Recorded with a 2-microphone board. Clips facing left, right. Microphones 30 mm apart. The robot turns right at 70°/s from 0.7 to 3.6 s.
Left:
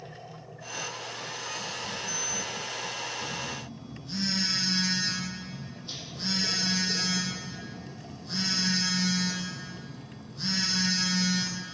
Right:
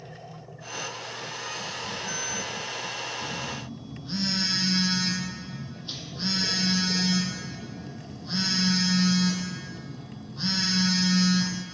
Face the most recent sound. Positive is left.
turn(degrees=-25)  # may be behind; listen again after turning